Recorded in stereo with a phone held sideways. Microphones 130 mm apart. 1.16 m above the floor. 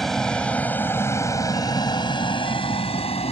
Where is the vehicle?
Centre (ahead or behind); by 3.3 s 50° left (ahead or behind).